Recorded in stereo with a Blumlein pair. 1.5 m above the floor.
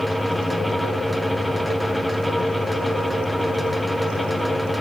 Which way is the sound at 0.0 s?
5° left.